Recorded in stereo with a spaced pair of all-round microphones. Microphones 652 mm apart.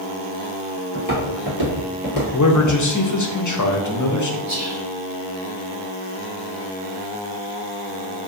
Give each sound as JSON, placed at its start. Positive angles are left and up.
{"t": 0.9, "sound": "footsteps", "side_deg": -30, "distance_m": 1.9}
{"t": 2.3, "sound": "a man speaking", "side_deg": 30, "distance_m": 0.6}
{"t": 4.5, "sound": "whispering", "side_deg": -25, "distance_m": 1.3}